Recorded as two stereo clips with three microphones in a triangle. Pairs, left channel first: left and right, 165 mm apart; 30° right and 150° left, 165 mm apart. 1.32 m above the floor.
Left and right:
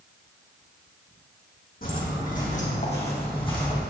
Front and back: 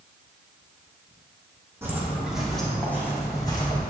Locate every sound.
1.8 s footsteps: 75° left, 3 m; by 3.8 s 25° left, 3 m